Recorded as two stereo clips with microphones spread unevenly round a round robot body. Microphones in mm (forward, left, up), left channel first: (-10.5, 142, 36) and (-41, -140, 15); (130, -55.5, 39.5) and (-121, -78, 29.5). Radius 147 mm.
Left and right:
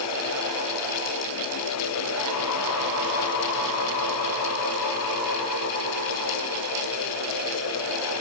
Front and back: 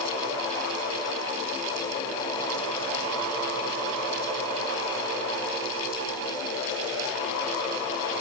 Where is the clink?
I don't hear a clink.